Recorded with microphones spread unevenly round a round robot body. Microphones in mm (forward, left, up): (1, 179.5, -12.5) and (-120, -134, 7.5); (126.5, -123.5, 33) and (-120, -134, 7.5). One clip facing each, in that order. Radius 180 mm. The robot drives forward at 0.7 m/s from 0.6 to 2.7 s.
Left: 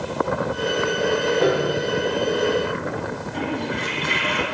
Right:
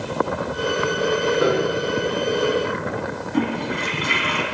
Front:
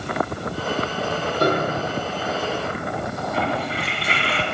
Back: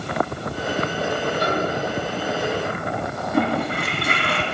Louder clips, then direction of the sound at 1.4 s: Even, front 2 dB; 35° right.